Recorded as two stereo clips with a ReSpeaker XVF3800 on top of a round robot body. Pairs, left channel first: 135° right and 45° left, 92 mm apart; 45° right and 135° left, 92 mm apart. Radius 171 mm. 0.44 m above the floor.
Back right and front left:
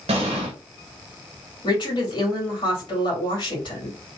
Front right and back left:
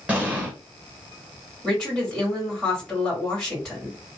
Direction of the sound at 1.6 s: 130° right.